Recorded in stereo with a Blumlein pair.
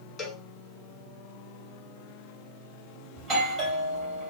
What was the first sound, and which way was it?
A cowbell, 25° left.